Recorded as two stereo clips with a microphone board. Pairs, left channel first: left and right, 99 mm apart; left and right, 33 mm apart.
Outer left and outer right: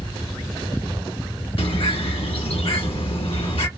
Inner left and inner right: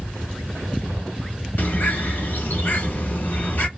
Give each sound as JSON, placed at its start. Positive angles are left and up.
{"t": 1.6, "sound": "a bird", "side_deg": 80, "distance_m": 1.5}